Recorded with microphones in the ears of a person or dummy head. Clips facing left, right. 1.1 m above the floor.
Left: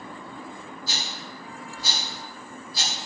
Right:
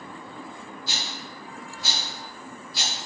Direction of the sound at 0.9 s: 50° right (ahead or behind).